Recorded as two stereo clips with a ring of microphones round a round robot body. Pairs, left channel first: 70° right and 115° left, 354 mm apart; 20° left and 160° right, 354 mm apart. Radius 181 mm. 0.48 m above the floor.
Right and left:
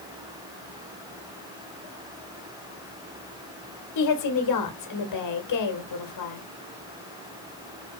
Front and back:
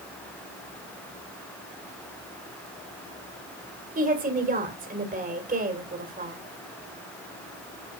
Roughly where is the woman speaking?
Right.